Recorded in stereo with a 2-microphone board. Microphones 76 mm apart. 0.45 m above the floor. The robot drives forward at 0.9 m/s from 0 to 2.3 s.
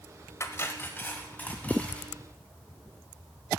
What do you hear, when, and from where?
0.4 s cutlery clinking: 40° left (ahead or behind), 1.0 m; by 2.1 s 15° left (ahead or behind), 2.5 m